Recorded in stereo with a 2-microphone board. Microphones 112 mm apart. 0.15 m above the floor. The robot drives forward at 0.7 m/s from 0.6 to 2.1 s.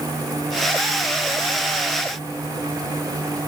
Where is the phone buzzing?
No phone buzzing in this recording.